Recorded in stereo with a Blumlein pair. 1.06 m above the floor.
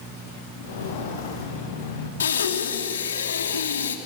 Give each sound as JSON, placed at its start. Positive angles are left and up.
{"t": 0.6, "sound": "footsteps", "azimuth_deg": 60, "distance_m": 6.5}
{"t": 2.2, "sound": "breathing", "azimuth_deg": 65, "distance_m": 2.5}